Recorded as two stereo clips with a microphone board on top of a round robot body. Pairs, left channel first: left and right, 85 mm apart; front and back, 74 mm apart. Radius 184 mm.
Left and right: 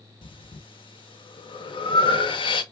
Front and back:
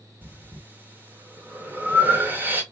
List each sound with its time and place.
0.2 s breathing: 115° left, 0.8 m